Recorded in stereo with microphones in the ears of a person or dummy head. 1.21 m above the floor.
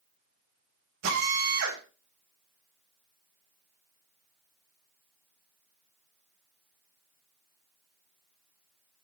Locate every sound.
1.0 s a drill: 65° right (ahead or behind), 7 m